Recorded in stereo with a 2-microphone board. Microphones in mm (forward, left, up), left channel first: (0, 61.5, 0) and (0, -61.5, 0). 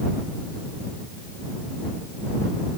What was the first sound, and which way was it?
Only background noise.